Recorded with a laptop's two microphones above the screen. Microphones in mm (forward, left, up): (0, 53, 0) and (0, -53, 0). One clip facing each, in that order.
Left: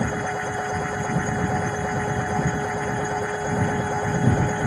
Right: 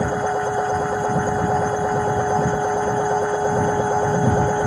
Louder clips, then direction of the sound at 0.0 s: Right 5 dB; 25° right (ahead or behind).